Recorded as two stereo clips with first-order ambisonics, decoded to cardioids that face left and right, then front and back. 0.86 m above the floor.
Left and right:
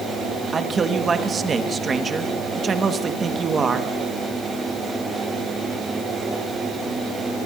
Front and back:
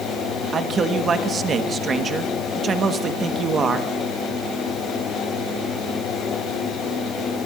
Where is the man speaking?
140° right, 1.1 m.